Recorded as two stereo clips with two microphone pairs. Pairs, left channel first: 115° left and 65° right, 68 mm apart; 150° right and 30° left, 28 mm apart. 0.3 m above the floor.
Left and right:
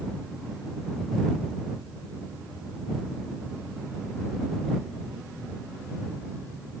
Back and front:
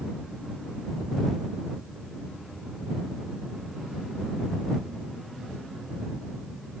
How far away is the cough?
No cough in this recording.